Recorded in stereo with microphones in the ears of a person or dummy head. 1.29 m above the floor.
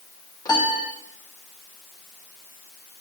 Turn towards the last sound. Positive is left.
turn(degrees=20)  # may be behind; listen again after turning